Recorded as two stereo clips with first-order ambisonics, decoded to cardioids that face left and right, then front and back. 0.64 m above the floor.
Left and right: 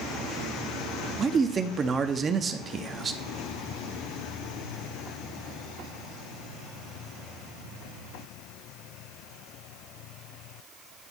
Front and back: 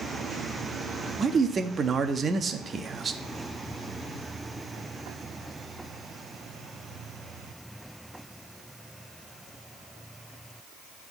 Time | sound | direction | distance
1.2 | a man speaking | 135° right | 0.5 m